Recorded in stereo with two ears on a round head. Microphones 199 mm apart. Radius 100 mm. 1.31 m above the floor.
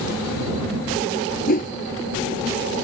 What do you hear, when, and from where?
1.5 s a whoosh: 40° left (ahead or behind)